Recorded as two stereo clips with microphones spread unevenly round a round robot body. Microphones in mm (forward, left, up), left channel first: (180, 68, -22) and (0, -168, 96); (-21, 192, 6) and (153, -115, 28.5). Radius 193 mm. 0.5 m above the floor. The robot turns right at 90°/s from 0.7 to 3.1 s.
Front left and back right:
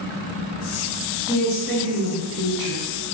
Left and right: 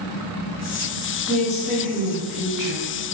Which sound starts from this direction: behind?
A woman speaking, at 1.3 s.